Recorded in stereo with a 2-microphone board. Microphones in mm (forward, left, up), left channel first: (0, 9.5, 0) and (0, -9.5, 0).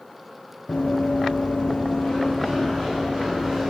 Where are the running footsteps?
75° left (ahead or behind), 1.0 m; by 3.7 s 5° left (ahead or behind), 1.8 m.